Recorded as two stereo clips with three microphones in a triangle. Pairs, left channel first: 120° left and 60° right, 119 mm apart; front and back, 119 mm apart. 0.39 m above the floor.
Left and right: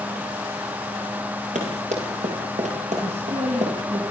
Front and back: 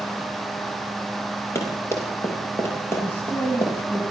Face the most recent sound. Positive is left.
turn(degrees=-75)